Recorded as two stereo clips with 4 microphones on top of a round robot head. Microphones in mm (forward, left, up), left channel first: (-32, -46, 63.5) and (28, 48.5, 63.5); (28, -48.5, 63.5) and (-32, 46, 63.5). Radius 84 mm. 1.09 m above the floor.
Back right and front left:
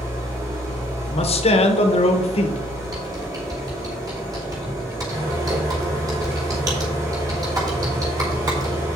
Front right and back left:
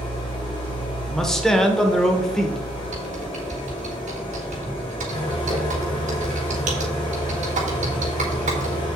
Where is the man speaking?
145° right, 1.2 m.